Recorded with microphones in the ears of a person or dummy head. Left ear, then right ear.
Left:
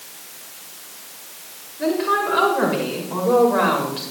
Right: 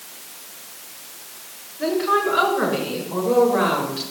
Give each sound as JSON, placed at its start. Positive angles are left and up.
{"t": 1.8, "sound": "a woman speaking", "side_deg": 15, "distance_m": 6.0}